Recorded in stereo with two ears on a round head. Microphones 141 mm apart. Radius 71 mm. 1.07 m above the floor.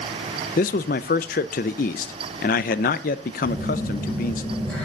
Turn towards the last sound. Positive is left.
turn(degrees=10)  # may be behind; listen again after turning